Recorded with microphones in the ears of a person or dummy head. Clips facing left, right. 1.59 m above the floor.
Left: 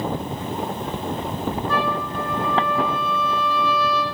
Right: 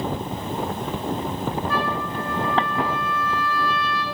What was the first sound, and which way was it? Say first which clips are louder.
A trumpet: left 1 dB; 80° left.